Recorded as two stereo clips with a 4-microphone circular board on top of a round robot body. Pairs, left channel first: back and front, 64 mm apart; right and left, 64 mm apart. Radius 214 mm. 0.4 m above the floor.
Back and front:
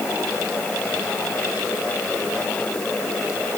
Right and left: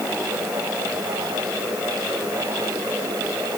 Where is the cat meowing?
I don't hear a cat meowing.